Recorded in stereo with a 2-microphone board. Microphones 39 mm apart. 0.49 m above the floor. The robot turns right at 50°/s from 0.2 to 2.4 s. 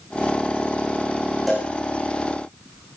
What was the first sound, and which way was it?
A cowbell, centre (ahead or behind).